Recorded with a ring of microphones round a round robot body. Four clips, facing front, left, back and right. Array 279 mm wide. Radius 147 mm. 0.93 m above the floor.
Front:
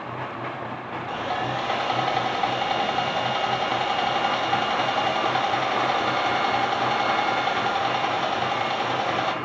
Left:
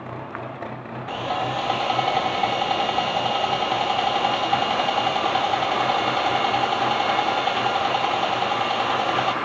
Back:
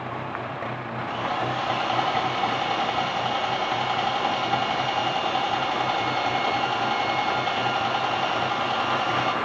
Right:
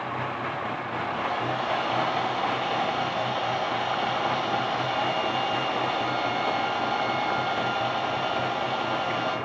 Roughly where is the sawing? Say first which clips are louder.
Left 5 dB, even; ahead left.